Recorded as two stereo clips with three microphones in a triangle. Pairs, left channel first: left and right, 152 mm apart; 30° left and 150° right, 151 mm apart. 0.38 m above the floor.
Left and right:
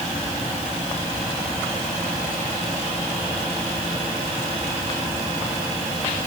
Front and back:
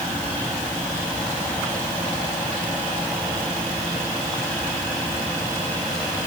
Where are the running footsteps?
No running footsteps in this recording.